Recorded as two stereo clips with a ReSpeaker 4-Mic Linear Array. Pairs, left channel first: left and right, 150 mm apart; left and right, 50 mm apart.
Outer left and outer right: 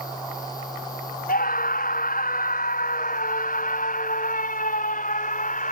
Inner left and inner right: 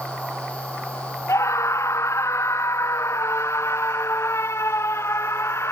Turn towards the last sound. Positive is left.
turn(degrees=60)  # may be behind; listen again after turning